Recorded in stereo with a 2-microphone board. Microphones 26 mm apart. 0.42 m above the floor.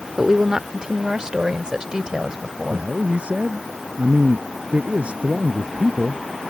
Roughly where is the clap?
No clap in this recording.